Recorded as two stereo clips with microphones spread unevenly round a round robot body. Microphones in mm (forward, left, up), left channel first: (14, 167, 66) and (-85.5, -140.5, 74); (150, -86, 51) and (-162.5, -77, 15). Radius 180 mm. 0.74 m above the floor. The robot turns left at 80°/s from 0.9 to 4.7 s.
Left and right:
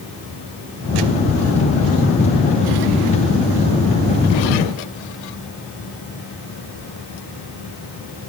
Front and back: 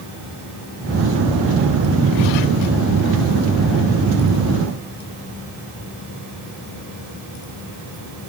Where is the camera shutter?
I don't hear a camera shutter.